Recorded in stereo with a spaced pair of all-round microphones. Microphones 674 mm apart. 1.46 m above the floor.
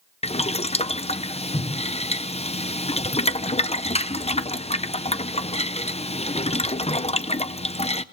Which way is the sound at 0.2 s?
10° left (ahead or behind).